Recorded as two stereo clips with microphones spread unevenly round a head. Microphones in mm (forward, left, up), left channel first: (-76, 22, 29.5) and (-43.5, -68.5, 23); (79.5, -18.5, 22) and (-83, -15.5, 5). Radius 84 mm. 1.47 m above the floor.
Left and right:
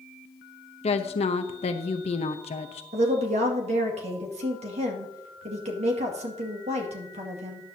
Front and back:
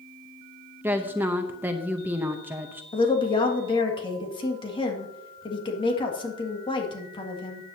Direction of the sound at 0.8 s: 105° left.